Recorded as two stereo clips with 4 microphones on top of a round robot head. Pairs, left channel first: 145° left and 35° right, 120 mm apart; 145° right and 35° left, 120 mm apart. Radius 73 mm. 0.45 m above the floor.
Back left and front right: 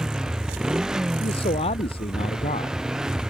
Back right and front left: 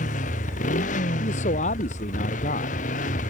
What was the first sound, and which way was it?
A motorcycle, 120° right.